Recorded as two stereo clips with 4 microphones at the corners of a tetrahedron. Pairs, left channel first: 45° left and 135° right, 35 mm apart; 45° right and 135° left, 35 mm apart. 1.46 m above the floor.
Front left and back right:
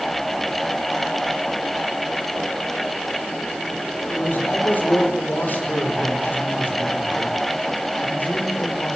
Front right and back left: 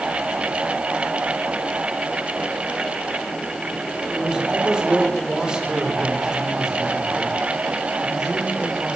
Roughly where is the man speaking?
Left.